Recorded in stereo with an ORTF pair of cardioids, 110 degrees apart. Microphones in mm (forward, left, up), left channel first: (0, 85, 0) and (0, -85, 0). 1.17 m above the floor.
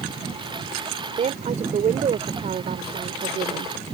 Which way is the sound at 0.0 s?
25° right.